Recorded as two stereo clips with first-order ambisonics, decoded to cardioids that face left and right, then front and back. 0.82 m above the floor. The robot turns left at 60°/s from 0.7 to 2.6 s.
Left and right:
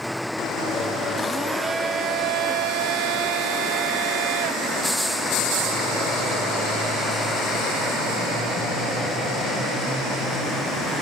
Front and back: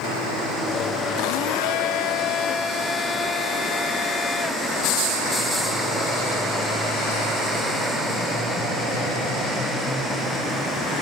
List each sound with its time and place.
1.2 s a blender: 15° left, 0.5 m; by 5.7 s 70° right, 0.5 m